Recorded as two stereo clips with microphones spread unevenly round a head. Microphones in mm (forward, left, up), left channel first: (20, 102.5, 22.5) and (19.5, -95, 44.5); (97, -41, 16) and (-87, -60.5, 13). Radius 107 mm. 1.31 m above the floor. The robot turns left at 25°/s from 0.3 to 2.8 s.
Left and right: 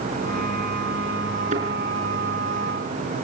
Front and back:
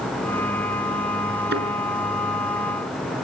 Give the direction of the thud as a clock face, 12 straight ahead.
5 o'clock.